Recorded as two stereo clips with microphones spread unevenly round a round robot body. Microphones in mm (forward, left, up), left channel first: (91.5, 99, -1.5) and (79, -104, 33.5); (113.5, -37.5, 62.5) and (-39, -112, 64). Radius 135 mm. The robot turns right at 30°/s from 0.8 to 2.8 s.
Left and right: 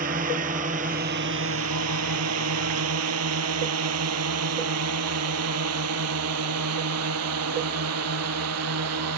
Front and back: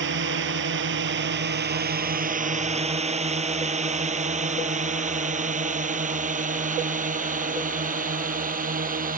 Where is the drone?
155° right; by 9.2 s 120° right.